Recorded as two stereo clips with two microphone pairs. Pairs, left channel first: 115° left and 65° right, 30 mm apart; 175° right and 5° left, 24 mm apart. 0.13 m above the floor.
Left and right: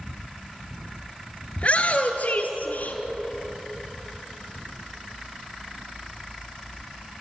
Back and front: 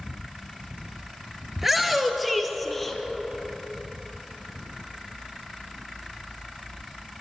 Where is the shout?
85° left, 2 m; by 3.0 s 105° left, 3.5 m.